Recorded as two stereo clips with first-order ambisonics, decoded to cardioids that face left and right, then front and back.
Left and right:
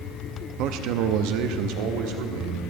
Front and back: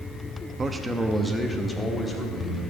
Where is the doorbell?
No doorbell in this recording.